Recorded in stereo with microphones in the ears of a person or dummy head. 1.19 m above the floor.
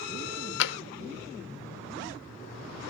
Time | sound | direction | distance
0.6 | tapping | 70° left (ahead or behind) | 1.1 m